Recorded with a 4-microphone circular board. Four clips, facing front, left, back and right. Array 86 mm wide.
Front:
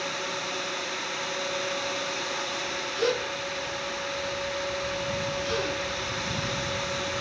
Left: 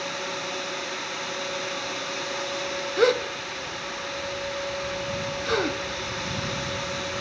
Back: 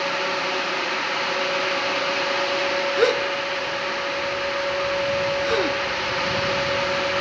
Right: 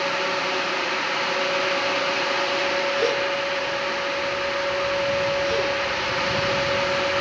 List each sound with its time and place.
3.0 s a gasp: 140° left, 0.6 m